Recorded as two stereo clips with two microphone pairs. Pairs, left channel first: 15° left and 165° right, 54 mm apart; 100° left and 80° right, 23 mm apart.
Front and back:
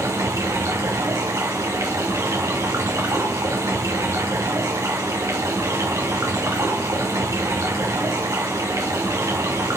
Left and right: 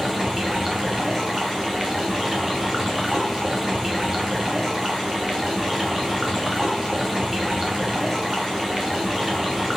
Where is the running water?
150° right, 3.5 m.